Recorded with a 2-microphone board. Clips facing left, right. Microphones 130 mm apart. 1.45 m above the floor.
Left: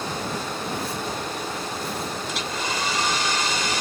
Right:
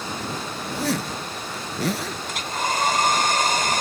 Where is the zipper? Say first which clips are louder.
Right 3 dB; 75° right (ahead or behind).